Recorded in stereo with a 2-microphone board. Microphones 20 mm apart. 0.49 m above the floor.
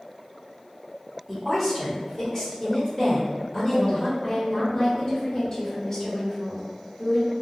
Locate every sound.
1.3 s a woman speaking: 5° right (ahead or behind), 1.7 m; by 4.1 s 40° left (ahead or behind), 1.3 m
4.2 s a woman speaking: 35° left (ahead or behind), 1.2 m